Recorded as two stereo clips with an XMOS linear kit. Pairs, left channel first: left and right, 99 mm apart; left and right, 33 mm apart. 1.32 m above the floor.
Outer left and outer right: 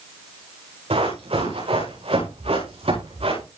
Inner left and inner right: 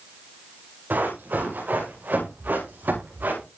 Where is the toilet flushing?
No toilet flushing in this recording.